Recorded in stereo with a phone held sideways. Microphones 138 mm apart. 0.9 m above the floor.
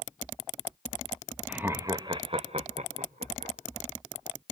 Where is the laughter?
10° right (ahead or behind), 0.9 m; by 3.5 s 70° right (ahead or behind), 1.7 m.